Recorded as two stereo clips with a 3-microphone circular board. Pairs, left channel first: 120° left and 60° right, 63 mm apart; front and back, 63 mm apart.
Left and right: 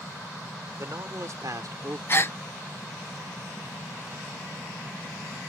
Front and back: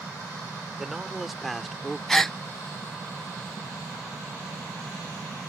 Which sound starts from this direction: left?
A gasp, at 2.1 s.